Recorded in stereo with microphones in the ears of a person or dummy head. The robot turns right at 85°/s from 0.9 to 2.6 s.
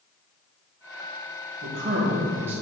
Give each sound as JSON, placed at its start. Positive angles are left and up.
{"t": 1.6, "sound": "a man speaking", "azimuth_deg": -85, "distance_m": 2.5}